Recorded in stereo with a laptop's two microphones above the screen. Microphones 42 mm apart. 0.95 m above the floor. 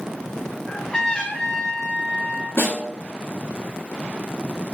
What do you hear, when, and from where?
0.7 s a trumpet: 15° left (ahead or behind), 0.5 m
2.6 s a snare drum: 65° left (ahead or behind), 2 m